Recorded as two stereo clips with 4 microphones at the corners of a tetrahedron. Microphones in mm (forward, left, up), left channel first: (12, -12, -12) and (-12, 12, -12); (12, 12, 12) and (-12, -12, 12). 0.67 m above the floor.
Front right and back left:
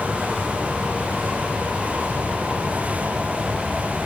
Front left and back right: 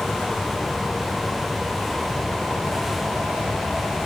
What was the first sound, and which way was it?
Only background noise.